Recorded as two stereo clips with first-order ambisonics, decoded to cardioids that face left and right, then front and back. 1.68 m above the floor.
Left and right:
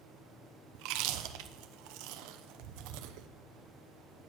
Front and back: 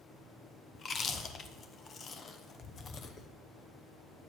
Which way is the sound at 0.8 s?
70° right.